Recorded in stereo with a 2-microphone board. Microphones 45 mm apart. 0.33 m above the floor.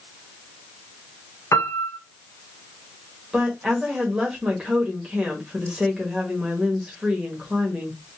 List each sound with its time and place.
1.5 s a piano: 75° left (ahead or behind), 0.8 m
3.3 s a woman speaking: 20° right (ahead or behind), 1.0 m